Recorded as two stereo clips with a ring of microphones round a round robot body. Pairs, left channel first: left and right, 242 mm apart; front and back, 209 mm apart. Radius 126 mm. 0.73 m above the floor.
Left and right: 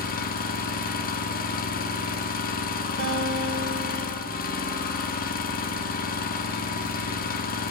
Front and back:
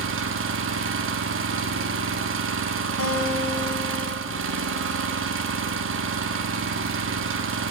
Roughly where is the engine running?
Behind left.